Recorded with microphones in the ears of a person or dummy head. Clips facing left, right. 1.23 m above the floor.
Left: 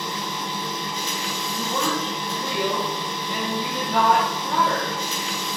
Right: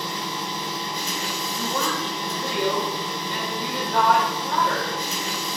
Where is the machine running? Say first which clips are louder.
Even; 35° right (ahead or behind), 0.9 m.